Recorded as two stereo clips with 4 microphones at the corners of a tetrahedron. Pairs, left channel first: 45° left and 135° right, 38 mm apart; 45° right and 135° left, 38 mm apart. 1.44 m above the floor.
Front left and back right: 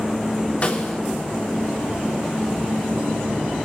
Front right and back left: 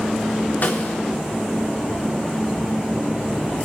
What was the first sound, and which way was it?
A snare drum, 10° right.